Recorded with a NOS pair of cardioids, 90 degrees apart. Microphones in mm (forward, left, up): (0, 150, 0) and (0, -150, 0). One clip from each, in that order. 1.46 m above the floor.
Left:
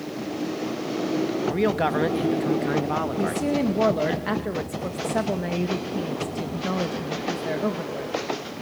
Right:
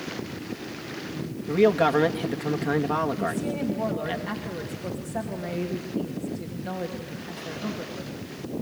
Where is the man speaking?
5° right, 1.9 m.